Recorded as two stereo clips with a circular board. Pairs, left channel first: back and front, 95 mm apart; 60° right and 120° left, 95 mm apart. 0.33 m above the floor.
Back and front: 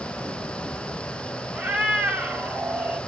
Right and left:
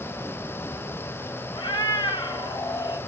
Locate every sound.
1.5 s a cat meowing: 70° right, 0.7 m